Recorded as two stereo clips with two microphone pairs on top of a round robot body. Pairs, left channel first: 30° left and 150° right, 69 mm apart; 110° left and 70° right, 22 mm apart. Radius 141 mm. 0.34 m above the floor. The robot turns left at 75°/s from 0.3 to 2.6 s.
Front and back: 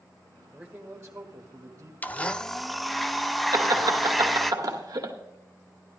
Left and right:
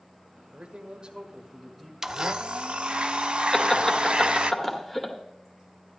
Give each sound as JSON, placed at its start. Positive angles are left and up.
{"t": 0.5, "sound": "a man speaking", "azimuth_deg": -60, "distance_m": 1.5}
{"t": 2.0, "sound": "a blender", "azimuth_deg": -5, "distance_m": 0.8}
{"t": 3.5, "sound": "laughter", "azimuth_deg": -160, "distance_m": 1.8}